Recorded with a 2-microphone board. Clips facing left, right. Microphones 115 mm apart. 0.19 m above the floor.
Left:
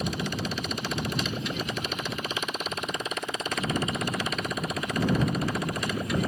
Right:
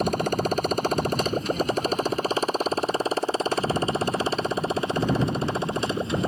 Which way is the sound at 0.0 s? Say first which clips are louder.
Right 7 dB; 45° right (ahead or behind).